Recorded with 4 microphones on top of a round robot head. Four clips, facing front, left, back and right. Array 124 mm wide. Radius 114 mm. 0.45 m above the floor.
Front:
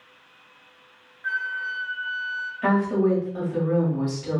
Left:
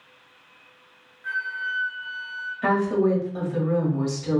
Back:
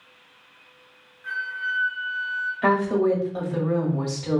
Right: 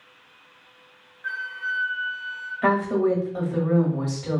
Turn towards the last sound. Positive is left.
turn(degrees=-145)